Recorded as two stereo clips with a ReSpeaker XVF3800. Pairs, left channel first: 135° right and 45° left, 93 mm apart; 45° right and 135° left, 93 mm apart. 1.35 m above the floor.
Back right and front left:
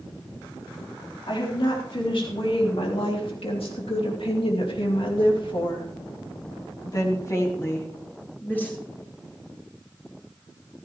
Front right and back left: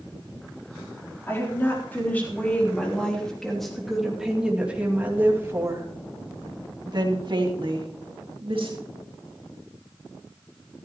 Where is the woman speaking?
110° right, 4 m; by 8.8 s 150° left, 3 m.